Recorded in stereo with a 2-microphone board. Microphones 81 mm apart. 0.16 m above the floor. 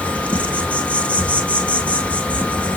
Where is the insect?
15° left (ahead or behind), 1.7 m.